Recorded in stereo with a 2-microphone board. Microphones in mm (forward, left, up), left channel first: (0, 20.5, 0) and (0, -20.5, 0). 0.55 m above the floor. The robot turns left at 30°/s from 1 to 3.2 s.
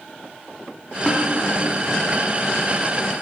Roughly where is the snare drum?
Left.